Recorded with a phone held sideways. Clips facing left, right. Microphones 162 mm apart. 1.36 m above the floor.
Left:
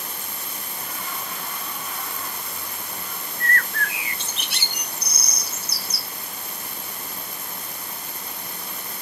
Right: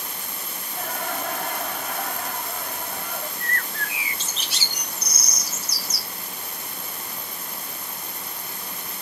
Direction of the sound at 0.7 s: 75° right (ahead or behind).